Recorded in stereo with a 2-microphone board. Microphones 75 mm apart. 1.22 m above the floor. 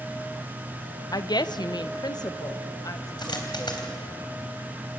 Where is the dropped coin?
70° left (ahead or behind), 3.5 m.